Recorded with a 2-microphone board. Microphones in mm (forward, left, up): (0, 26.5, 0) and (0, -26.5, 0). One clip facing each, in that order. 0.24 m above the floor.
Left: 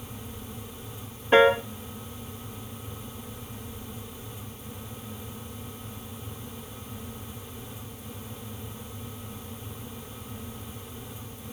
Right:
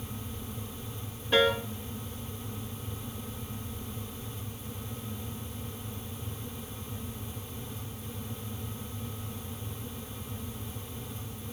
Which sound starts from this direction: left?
A piano, at 1.3 s.